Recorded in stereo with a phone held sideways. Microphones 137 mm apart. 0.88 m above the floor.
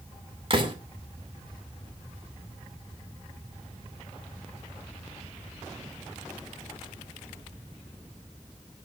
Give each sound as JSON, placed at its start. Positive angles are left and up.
{"t": 0.5, "sound": "a door slam", "side_deg": -40, "distance_m": 2.5}